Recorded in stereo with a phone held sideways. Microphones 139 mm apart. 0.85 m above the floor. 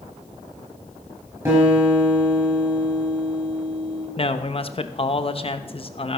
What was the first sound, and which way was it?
A guitar, 20° right (ahead or behind).